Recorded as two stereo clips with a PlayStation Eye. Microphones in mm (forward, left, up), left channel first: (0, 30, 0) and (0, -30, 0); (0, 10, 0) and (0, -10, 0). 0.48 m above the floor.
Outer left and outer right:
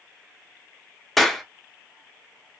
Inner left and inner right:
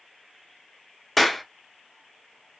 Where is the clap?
Centre (ahead or behind), 0.6 m.